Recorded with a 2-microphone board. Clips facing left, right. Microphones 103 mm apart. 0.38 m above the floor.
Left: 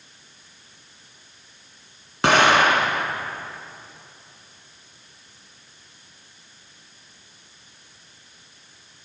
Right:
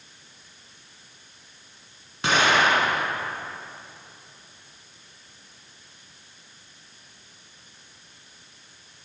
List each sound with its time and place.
2.2 s an explosion: 70° left (ahead or behind), 0.8 m